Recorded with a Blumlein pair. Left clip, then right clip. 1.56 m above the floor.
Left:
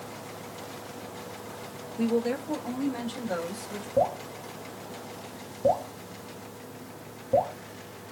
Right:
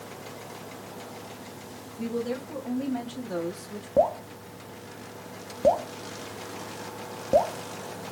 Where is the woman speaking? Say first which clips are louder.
Left 4 dB; 25° left, 1.2 m; by 3.9 s 30° left, 3 m.